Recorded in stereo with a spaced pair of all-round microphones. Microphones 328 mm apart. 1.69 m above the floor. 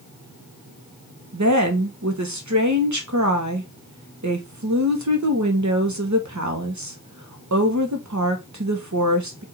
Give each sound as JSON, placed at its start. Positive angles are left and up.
{"t": 1.3, "sound": "a woman speaking", "side_deg": -60, "distance_m": 1.2}